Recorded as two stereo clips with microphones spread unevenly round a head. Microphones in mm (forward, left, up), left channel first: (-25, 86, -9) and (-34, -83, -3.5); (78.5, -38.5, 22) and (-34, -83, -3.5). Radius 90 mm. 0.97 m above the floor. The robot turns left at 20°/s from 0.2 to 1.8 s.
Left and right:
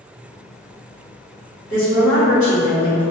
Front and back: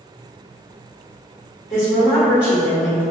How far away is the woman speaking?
About 1.4 m.